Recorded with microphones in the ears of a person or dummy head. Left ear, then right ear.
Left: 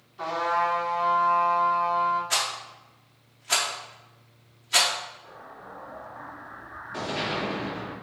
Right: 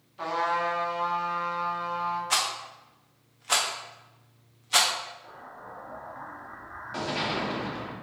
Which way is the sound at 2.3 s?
15° right (ahead or behind).